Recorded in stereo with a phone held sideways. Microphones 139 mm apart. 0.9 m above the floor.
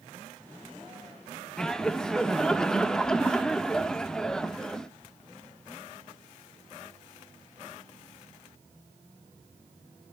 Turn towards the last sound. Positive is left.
turn(degrees=5)  # may be behind; listen again after turning